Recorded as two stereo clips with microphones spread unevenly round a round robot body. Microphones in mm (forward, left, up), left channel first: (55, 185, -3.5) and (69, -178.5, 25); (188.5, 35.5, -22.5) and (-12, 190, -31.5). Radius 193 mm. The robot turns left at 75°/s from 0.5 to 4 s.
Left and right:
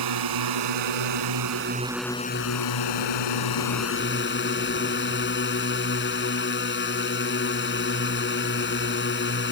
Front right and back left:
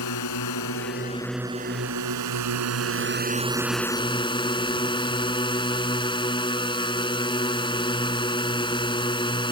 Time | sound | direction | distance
0.0 | a drone | 65° right | ?